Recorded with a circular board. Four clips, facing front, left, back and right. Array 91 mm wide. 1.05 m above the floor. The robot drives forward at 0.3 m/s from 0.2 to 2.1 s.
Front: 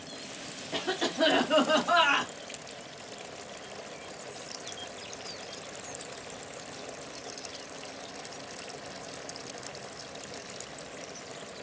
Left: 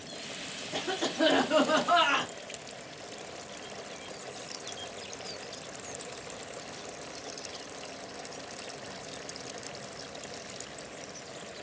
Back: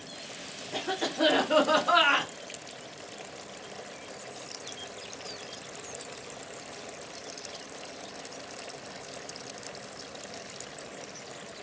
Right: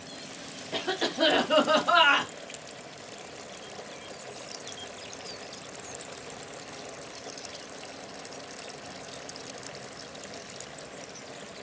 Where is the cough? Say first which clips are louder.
Right 2 dB, even; 60° right, 0.7 m; by 2.3 s 145° right, 0.7 m.